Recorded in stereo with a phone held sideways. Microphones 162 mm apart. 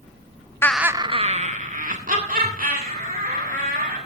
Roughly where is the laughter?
Centre.